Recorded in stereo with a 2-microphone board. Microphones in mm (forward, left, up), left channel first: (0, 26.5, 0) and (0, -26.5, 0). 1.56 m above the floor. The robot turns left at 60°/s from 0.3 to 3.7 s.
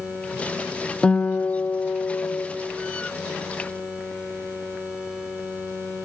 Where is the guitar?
160° left, 0.5 m; by 2.5 s 75° left, 0.5 m.